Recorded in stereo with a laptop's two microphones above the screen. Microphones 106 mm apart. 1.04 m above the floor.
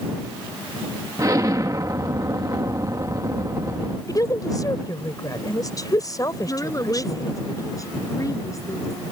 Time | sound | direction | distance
1.2 | an explosion | 35° right (ahead or behind) | ?
4.1 | a woman speaking | 35° left (ahead or behind) | ?
6.5 | a woman speaking | 30° left (ahead or behind) | ?